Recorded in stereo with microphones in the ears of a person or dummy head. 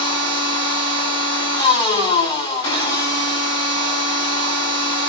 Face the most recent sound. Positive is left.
turn(degrees=30)  # may be behind; listen again after turning